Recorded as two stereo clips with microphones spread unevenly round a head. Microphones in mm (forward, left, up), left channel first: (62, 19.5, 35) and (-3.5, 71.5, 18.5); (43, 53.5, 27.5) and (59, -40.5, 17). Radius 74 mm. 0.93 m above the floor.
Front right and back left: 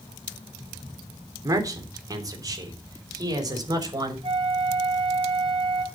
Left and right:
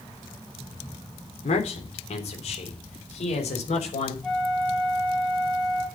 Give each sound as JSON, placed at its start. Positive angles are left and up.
{"t": 1.4, "sound": "a man speaking", "azimuth_deg": 95, "distance_m": 3.5}
{"t": 4.2, "sound": "a flute", "azimuth_deg": -175, "distance_m": 2.5}